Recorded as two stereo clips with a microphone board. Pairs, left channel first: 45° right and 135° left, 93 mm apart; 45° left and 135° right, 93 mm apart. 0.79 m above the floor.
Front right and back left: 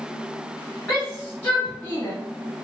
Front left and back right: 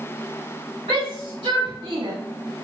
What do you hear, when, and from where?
0.9 s a shout: 135° right, 1.4 m; by 2.1 s 95° right, 0.8 m